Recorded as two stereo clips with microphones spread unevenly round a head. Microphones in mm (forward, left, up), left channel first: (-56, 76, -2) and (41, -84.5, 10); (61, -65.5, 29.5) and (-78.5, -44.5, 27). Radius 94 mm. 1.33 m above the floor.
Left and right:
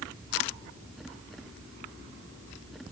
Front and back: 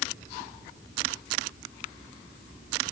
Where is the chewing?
No chewing in this recording.